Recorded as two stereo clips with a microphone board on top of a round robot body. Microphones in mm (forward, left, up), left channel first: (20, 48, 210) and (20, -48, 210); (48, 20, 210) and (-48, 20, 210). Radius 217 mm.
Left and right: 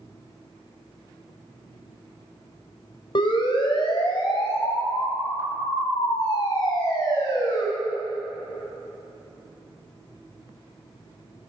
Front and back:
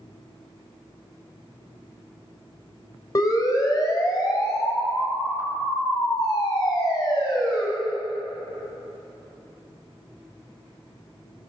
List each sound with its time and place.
3.1 s a siren: 50° left, 4.5 m; by 7.6 s 40° left, 7.5 m